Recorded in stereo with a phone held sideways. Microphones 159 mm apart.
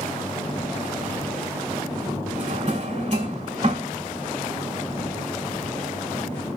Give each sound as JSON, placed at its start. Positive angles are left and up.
{"t": 2.4, "sound": "a drawer", "side_deg": -55, "distance_m": 2.0}